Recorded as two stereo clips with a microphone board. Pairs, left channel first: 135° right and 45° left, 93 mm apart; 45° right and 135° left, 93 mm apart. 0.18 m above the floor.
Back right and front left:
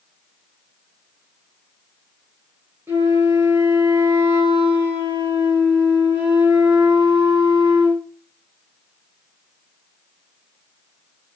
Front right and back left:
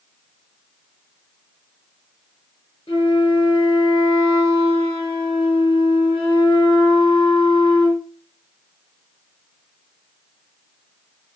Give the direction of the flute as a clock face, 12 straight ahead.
1 o'clock.